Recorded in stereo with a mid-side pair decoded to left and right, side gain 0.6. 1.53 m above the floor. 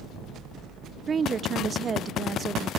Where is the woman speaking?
35° right.